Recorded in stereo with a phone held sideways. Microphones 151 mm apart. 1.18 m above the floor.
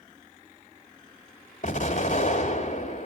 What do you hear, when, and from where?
1.6 s an explosion: 60° left (ahead or behind), 2 m